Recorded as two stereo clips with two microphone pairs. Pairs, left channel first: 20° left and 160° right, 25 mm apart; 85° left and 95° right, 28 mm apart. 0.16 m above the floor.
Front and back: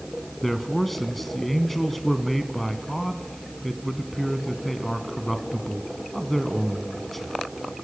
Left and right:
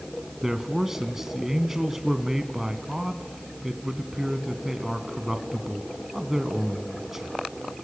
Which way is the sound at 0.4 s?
45° right.